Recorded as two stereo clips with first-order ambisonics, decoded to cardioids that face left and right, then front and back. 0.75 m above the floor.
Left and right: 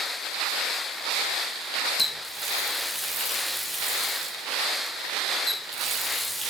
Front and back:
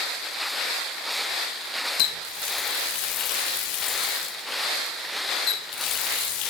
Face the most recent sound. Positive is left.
turn(degrees=-5)